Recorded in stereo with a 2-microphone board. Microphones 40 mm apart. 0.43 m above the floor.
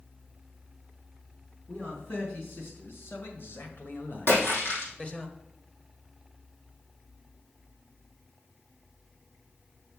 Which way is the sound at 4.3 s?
60° left (ahead or behind).